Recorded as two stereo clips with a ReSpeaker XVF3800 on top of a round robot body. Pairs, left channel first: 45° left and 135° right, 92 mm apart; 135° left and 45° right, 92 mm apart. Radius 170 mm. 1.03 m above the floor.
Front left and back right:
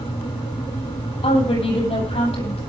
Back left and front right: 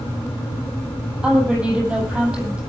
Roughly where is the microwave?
I don't hear a microwave.